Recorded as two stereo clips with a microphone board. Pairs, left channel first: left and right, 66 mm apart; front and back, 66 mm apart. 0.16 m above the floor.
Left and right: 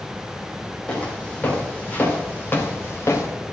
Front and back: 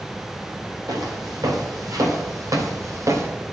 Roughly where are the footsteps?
Behind.